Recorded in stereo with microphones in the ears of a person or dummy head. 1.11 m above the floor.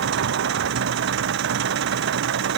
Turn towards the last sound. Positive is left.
turn(degrees=-65)  # may be behind; listen again after turning